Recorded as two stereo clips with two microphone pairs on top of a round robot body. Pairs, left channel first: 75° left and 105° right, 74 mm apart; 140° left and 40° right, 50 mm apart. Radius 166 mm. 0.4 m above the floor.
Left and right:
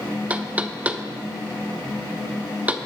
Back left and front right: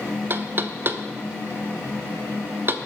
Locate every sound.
0.3 s knocking: 40° right, 1.1 m